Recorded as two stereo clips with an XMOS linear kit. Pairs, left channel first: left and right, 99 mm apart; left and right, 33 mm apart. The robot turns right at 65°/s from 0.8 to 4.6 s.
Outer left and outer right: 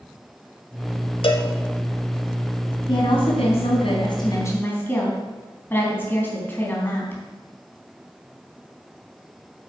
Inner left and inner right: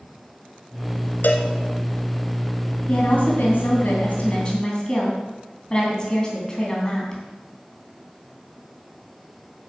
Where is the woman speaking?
45° left, 3.5 m; by 7.2 s 160° left, 3.5 m.